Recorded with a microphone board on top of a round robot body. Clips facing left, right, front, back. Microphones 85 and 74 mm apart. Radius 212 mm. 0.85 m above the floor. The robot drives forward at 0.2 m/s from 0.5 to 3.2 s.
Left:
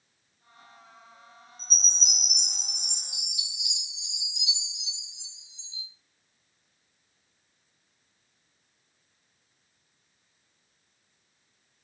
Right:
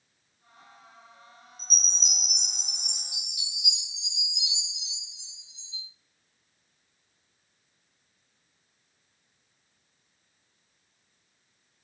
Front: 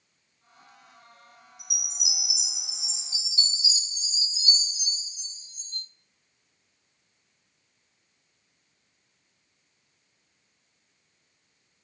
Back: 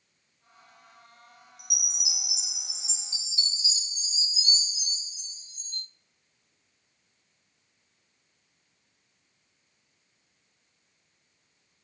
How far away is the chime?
About 0.7 m.